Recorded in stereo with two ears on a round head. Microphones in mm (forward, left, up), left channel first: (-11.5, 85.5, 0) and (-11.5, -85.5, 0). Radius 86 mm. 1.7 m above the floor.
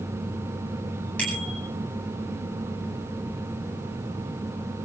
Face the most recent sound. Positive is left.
turn(degrees=5)  # may be behind; listen again after turning